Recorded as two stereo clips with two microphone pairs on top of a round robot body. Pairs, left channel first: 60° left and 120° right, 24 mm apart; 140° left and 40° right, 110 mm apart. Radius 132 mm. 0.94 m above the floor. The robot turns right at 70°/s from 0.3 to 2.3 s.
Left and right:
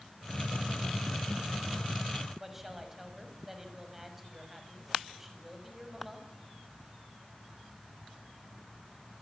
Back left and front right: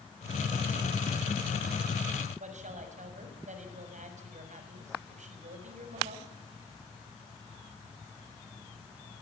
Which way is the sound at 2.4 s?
40° right.